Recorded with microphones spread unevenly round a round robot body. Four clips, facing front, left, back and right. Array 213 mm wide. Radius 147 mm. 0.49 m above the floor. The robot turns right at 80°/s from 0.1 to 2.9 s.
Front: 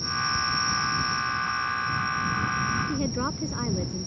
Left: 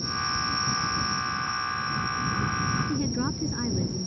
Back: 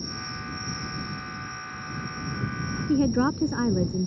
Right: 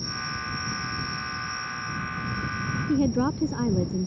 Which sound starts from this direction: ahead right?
An insect, at 0.0 s.